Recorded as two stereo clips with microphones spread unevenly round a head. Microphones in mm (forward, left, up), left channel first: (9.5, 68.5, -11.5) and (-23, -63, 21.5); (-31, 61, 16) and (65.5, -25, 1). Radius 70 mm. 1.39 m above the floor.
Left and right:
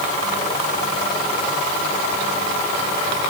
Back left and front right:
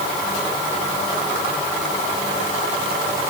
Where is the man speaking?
No man speaking in this recording.